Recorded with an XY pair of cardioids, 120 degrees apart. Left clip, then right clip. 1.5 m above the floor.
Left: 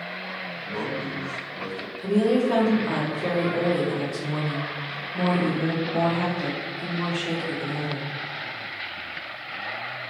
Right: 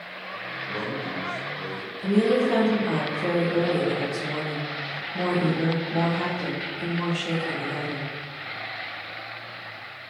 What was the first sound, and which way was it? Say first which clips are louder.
A man speaking: even; 35° left.